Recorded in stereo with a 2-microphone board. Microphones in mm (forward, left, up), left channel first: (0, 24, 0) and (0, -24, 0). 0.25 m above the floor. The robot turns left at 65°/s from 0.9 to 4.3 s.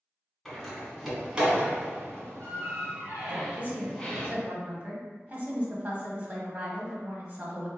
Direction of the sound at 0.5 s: 10° left (ahead or behind).